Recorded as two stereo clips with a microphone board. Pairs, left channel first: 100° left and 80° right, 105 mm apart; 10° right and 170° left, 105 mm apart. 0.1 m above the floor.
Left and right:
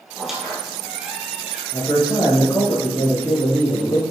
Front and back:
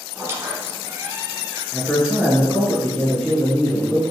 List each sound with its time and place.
0.1 s a squeak: 160° right, 1.2 m
1.7 s a man speaking: 75° left, 1.7 m